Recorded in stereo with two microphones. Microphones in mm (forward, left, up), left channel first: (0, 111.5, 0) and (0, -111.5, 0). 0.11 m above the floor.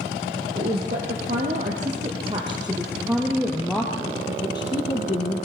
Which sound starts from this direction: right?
A woman speaking, at 0.6 s.